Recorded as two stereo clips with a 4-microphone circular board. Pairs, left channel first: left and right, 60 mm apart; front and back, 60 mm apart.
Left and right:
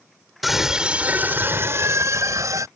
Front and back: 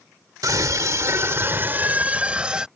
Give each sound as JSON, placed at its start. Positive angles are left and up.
{"t": 0.4, "sound": "a scream", "azimuth_deg": -175}